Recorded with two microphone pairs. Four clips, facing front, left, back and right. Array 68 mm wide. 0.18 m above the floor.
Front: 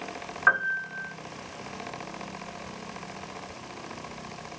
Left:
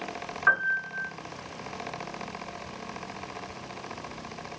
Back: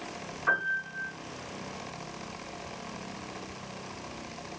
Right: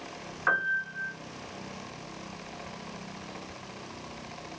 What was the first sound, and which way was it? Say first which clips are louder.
A piano: left 3 dB, front 5 dB; 15° left.